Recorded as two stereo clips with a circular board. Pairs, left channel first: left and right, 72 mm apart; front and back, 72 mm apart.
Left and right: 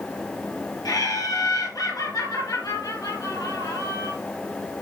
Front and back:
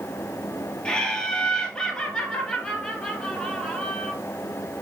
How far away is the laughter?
About 3.5 m.